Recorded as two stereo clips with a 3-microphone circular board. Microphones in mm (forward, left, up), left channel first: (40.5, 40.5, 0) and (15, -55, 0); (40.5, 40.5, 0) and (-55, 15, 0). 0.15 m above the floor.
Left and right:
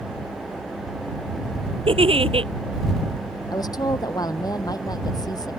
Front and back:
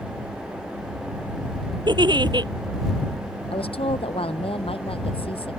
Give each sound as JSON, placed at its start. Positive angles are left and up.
{"t": 1.9, "sound": "a giggle", "azimuth_deg": -125}
{"t": 3.5, "sound": "a woman speaking", "azimuth_deg": 25}